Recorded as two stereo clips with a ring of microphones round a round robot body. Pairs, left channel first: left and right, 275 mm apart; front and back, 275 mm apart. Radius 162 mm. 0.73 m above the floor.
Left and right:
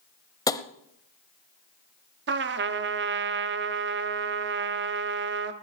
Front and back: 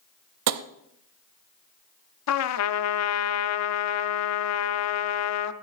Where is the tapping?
165° left, 0.7 m.